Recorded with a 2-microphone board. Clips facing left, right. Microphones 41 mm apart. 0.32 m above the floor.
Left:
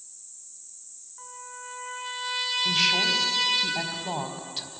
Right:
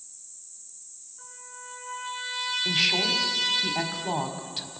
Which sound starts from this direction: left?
A trumpet, at 1.2 s.